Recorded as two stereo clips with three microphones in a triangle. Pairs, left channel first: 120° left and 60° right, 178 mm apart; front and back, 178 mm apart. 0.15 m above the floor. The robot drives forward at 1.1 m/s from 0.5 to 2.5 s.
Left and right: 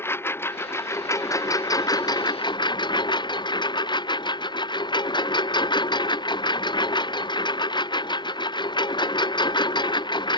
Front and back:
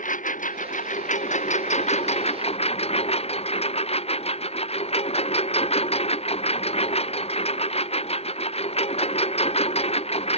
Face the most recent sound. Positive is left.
turn(degrees=55)